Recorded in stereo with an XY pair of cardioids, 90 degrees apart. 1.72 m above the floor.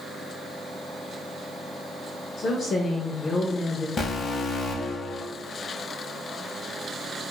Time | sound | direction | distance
2.4 | a woman speaking | 55° left | 0.5 m
4.0 | an alarm | 50° left | 0.7 m